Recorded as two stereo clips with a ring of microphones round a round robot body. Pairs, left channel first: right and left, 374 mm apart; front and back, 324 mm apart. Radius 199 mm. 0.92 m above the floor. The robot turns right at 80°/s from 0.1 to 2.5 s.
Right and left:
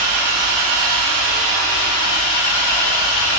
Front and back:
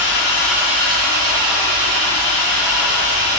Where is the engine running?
60° left, 1.0 m; by 3.4 s 110° right, 1.0 m.